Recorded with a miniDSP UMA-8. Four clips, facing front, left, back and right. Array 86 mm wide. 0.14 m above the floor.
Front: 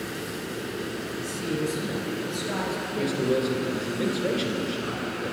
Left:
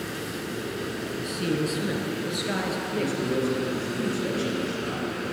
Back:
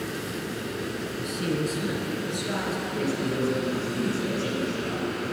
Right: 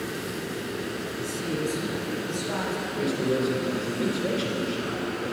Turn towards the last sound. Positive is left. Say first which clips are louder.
# right 1 dB, front 3 dB
turn(degrees=-15)